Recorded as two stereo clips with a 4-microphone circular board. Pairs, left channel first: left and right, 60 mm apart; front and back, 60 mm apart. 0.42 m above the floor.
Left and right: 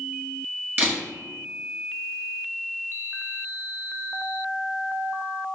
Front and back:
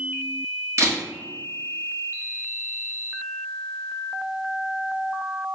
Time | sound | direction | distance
0.8 | a camera shutter | 145° right | 1.6 m